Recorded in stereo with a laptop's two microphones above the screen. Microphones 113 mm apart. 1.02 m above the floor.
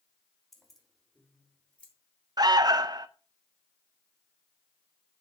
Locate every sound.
0.5 s keys jangling: centre (ahead or behind), 3.5 m; by 1.9 s 10° left (ahead or behind), 3 m
2.4 s an alarm: 40° right (ahead or behind), 0.5 m